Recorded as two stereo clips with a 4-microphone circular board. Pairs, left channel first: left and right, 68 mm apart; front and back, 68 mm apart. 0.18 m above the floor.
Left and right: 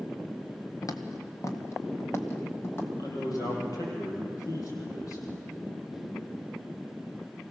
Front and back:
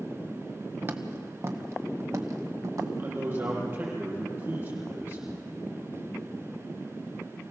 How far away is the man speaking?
About 5.5 m.